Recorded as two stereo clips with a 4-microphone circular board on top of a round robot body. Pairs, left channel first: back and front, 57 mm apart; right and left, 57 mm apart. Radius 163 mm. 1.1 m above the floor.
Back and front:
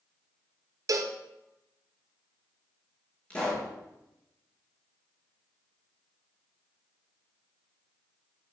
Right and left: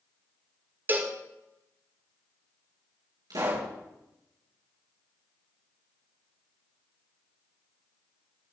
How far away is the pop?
About 6 m.